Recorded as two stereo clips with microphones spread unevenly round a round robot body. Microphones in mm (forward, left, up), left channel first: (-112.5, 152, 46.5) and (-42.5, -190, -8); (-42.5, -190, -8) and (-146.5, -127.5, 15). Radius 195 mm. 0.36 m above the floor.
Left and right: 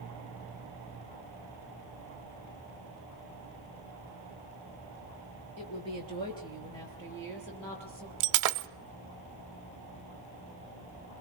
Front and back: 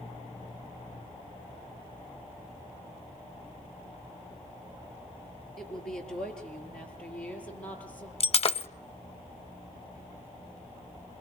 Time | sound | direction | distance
5.6 | a woman speaking | 25° left | 4.5 m
8.2 | breaking glass | 60° right | 0.8 m